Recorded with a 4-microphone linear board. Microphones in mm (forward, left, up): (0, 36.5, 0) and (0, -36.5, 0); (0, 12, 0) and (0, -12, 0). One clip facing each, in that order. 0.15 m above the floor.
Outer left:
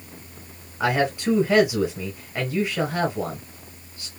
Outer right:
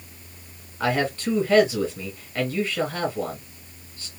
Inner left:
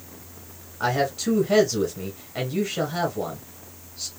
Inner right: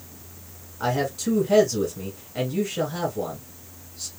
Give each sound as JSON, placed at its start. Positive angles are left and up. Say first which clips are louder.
{"t": 0.8, "sound": "a man speaking", "louder": "outer left 2 dB, inner left 1 dB", "side_deg": 15, "distance_m": 1.3}